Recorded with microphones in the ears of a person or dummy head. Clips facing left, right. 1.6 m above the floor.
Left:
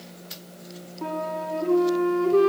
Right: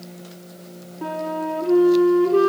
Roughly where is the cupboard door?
No cupboard door in this recording.